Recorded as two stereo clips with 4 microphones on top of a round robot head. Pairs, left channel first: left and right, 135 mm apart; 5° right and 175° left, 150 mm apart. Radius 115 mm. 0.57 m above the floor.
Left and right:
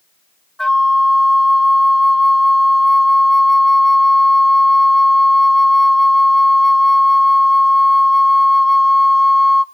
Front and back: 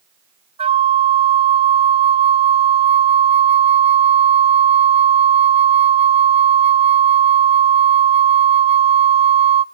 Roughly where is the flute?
Behind.